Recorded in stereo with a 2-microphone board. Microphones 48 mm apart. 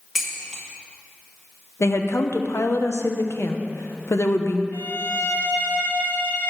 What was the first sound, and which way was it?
Dishes clattering, 10° right (ahead or behind).